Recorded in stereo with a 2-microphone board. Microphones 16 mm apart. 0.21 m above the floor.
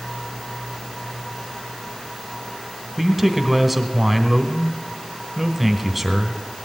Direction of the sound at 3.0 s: 5° right (ahead or behind).